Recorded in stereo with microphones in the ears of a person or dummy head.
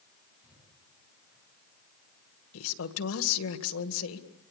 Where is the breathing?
5° right (ahead or behind), 7.5 m.